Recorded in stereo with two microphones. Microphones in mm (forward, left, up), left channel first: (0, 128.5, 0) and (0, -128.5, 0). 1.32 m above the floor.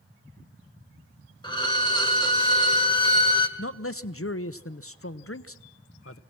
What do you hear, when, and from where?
1.4 s a violin: 15° left (ahead or behind), 1.4 m
3.6 s a man speaking: 60° left (ahead or behind), 0.8 m